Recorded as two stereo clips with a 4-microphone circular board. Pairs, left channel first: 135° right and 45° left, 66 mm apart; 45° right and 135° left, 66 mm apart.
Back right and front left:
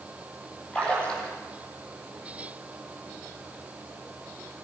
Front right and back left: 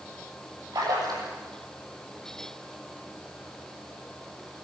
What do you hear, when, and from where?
0.7 s a splash: 150° left, 8 m